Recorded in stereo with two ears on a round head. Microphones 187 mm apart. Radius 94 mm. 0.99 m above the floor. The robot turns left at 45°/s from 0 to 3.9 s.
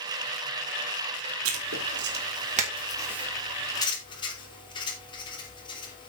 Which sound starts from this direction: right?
Writing, at 1.4 s.